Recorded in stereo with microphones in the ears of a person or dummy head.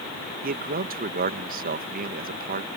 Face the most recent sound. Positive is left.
turn(degrees=-50)  # may be behind; listen again after turning